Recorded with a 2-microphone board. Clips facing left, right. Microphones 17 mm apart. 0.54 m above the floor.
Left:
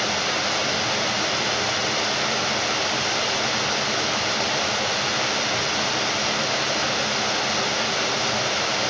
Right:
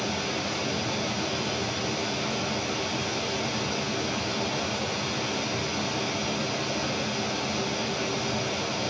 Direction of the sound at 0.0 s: 50° left (ahead or behind).